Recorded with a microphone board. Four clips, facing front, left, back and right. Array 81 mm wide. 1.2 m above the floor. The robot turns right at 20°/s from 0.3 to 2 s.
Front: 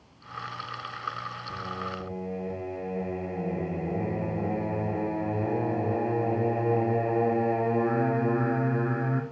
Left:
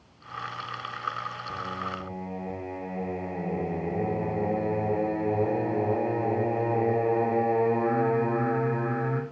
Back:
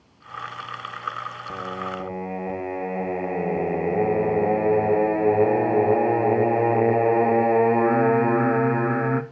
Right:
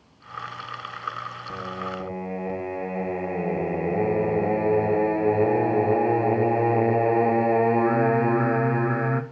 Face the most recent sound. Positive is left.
turn(degrees=-160)